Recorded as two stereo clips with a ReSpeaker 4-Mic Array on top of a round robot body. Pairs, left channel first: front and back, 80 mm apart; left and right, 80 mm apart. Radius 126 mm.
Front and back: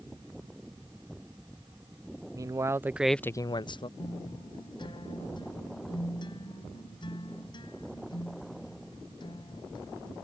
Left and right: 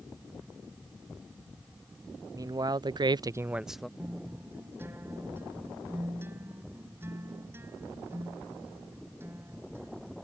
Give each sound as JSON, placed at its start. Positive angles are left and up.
{"t": 2.3, "sound": "a man speaking", "azimuth_deg": -135}
{"t": 4.0, "sound": "a guitar", "azimuth_deg": -30}